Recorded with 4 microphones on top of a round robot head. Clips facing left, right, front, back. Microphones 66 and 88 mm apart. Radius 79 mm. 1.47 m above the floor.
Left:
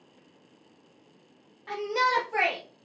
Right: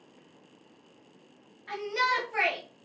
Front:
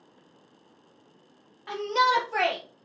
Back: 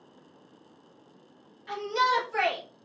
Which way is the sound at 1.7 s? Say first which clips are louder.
Left 2 dB, front 2 dB; 35° left.